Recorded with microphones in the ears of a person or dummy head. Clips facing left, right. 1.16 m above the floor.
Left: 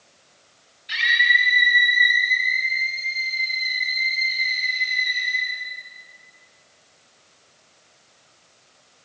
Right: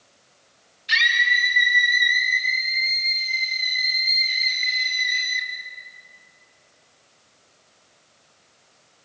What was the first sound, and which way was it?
A scream, 75° right (ahead or behind).